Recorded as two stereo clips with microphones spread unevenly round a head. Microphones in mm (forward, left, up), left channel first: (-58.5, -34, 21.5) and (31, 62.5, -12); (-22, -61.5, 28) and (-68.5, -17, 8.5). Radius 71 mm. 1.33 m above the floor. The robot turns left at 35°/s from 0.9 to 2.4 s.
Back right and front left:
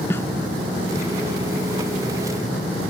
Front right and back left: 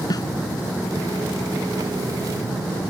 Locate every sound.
0.1 s a snare drum: 60° right